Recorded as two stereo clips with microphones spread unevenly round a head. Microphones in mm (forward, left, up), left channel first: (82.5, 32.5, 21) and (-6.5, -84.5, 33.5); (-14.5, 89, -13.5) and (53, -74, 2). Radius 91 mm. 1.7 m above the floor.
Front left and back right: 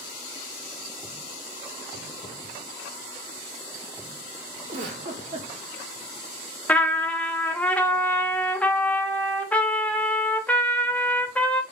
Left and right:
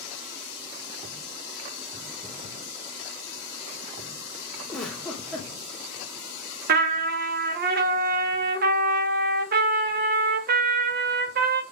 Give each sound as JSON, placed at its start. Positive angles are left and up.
{"t": 4.7, "sound": "a giggle", "azimuth_deg": -155, "distance_m": 0.6}
{"t": 6.7, "sound": "a trumpet", "azimuth_deg": -30, "distance_m": 0.6}